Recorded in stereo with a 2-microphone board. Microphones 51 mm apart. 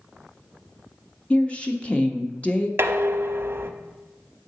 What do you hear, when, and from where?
1.3 s a woman speaking: 25° left (ahead or behind), 0.8 m
2.8 s dishes clattering: 50° right (ahead or behind), 0.6 m